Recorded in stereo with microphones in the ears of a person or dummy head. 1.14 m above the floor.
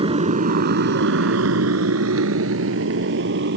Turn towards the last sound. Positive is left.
turn(degrees=-65)  # may be behind; listen again after turning